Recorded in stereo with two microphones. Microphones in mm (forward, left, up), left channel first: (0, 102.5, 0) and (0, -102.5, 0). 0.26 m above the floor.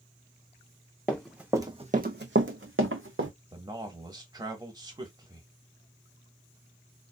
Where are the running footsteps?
5° left (ahead or behind), 0.9 m; by 3.3 s 70° right (ahead or behind), 1.2 m.